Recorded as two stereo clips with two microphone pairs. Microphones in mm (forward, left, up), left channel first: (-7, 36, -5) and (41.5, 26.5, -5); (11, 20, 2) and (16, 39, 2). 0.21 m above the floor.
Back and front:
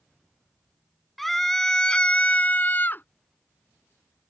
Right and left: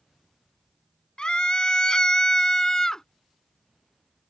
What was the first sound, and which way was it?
A scream, 105° right.